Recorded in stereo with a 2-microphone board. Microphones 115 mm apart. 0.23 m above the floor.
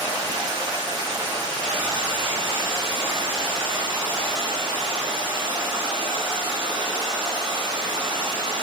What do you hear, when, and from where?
0.0 s running water: 45° right (ahead or behind), 0.7 m